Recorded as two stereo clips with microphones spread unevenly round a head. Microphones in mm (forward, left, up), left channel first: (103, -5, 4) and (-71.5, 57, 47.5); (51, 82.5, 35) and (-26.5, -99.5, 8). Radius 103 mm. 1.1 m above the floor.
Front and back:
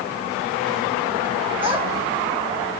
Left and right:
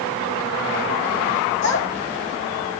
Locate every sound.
1.6 s a child speaking: 100° left, 3 m